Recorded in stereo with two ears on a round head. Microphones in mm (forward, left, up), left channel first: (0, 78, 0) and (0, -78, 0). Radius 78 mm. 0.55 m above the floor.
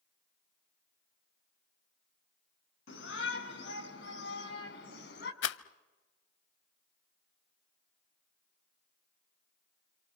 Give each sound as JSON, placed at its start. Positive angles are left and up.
{"t": 2.9, "sound": "a shout", "side_deg": 80, "distance_m": 4.5}
{"t": 5.4, "sound": "a rattle", "side_deg": 70, "distance_m": 0.7}